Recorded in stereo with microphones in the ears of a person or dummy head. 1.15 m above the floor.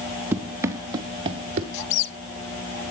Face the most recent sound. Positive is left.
turn(degrees=55)  # may be behind; listen again after turning